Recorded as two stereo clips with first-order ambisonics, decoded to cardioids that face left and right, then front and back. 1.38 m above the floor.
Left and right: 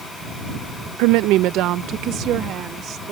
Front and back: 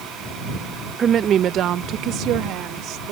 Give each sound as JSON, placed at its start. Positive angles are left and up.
{"t": 1.0, "sound": "a woman speaking", "azimuth_deg": -110}